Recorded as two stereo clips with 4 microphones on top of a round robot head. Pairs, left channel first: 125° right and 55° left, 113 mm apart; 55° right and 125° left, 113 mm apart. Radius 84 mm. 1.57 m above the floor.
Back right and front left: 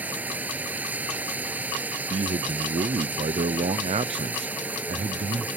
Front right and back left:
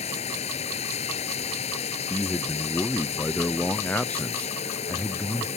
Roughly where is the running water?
Ahead right.